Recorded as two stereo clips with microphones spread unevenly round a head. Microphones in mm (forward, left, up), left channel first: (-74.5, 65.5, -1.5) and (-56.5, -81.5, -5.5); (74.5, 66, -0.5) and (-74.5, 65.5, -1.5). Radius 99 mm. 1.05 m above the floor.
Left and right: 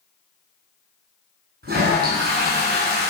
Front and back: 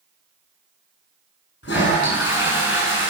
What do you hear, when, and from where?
1.6 s a toilet flushing: 35° right, 8 m